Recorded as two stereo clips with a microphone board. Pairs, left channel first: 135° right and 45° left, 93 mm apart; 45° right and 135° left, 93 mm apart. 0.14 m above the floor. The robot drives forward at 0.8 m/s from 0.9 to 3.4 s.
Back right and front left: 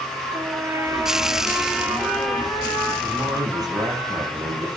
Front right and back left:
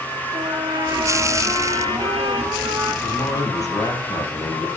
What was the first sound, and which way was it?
A trumpet, 95° left.